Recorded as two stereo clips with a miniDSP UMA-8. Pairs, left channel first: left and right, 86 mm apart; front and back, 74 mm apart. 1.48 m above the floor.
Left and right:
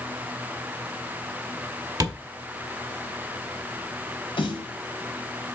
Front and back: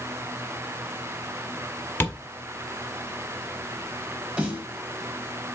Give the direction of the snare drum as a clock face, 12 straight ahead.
8 o'clock.